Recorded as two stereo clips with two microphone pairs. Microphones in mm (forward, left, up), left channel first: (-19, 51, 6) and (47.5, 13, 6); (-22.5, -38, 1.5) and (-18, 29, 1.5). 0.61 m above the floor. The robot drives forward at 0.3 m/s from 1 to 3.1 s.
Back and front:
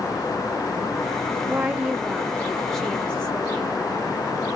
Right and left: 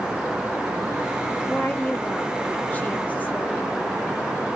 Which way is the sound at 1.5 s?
70° right.